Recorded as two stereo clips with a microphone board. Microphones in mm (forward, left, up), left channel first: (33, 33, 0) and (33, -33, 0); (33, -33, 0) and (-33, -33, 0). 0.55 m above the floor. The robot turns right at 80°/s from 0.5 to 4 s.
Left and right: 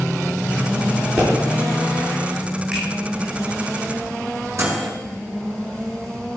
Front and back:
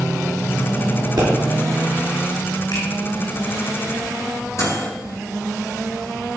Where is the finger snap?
20° right, 5.5 m; by 2.8 s 10° right, 5.5 m.